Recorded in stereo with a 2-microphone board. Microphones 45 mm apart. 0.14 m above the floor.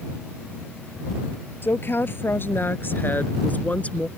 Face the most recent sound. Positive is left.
turn(degrees=25)  # may be behind; listen again after turning